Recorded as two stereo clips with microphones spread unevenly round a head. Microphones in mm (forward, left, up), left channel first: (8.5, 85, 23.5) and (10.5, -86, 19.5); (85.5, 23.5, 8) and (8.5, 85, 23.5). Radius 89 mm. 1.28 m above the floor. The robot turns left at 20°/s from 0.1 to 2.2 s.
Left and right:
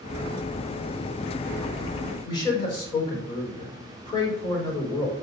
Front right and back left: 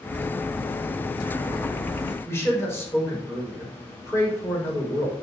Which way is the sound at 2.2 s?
25° left.